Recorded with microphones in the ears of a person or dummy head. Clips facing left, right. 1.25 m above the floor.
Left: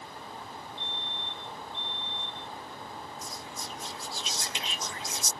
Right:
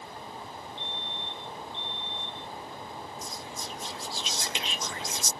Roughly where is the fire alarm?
Right.